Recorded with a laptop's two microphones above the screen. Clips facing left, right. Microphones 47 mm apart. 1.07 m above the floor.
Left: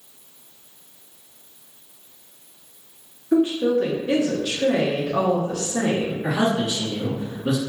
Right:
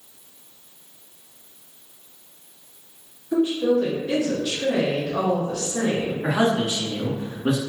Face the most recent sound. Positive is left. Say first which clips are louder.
# right 2 dB
turn(degrees=-45)  # may be behind; listen again after turning